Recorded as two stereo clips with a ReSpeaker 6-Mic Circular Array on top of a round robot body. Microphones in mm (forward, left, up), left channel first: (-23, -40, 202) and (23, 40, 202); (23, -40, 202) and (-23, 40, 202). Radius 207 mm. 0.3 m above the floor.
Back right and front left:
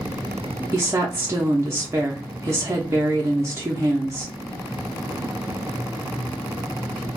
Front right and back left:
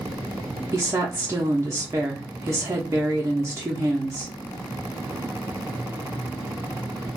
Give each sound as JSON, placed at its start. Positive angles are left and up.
{"t": 0.7, "sound": "a woman speaking", "azimuth_deg": 90, "distance_m": 0.9}